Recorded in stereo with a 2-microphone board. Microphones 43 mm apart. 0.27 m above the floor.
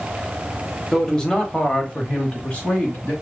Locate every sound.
0.9 s a man speaking: 10° left (ahead or behind), 1.0 m; by 3.1 s 35° left (ahead or behind), 1.5 m